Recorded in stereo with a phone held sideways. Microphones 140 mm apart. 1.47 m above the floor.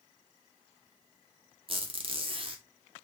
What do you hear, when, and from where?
1.7 s a squeak: 40° right (ahead or behind), 0.6 m